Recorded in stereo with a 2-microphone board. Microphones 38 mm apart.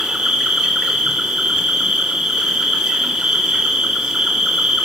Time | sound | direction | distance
0.0 | an insect | 15° right (ahead or behind) | 2 m